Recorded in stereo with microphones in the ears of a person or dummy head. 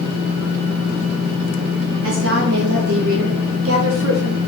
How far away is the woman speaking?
About 3.5 m.